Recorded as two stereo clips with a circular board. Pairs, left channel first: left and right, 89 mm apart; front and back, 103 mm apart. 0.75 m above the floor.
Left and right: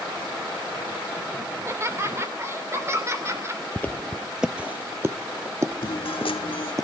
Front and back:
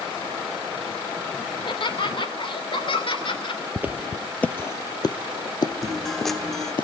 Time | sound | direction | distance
1.5 | laughter | 30° right | 2.5 m
3.8 | footsteps | 135° left | 0.8 m
5.8 | a guitar | 90° left | 1.3 m